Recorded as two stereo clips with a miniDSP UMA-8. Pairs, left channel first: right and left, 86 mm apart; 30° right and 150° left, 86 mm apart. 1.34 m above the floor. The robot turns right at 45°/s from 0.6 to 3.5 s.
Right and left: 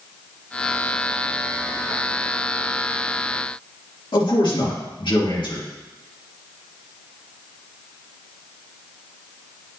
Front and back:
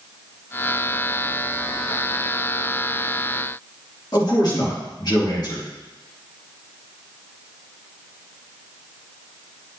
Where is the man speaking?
65° right, 2.5 m.